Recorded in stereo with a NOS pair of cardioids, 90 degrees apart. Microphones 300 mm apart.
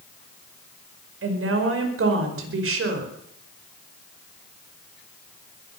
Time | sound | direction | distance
1.2 | a woman speaking | 45° right | 5 m